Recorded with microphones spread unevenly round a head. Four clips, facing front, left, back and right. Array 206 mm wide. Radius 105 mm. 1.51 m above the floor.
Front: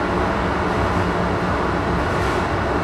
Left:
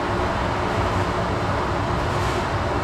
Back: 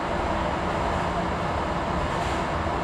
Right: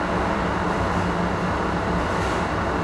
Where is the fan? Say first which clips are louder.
Even, front 6 dB; 15° left, 0.7 m.